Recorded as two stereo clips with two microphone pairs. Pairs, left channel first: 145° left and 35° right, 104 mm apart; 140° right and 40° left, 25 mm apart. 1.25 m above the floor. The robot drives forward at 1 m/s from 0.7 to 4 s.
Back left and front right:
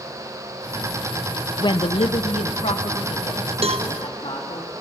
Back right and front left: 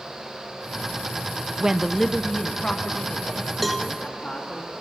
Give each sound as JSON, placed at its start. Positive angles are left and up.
{"t": 1.6, "sound": "a woman speaking", "azimuth_deg": 105, "distance_m": 0.5}
{"t": 3.6, "sound": "a cowbell", "azimuth_deg": -45, "distance_m": 0.9}